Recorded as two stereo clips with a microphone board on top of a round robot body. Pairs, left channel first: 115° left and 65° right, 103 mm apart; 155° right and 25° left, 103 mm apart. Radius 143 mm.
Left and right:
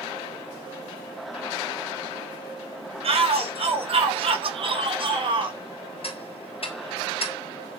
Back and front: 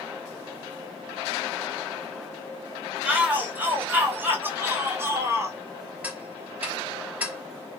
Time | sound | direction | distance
3.0 | a shout | 55° right | 4 m
6.0 | ticking | 95° left | 3 m